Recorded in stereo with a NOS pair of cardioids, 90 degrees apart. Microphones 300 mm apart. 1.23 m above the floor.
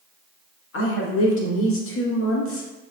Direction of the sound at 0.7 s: 45° left.